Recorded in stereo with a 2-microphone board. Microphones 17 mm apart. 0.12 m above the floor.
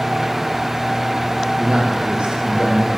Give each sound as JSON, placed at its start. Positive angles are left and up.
{"t": 1.6, "sound": "a man speaking", "side_deg": -65, "distance_m": 5.0}